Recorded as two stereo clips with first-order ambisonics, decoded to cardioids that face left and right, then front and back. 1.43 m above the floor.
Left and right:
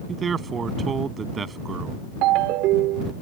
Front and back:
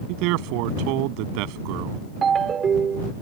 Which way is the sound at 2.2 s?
115° right.